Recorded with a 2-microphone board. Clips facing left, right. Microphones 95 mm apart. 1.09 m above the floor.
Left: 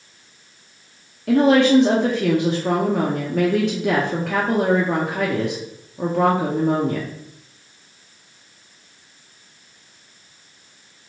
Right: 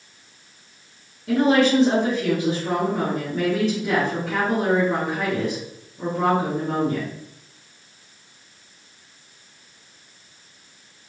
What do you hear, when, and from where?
1.3 s a woman speaking: 70° left (ahead or behind), 0.6 m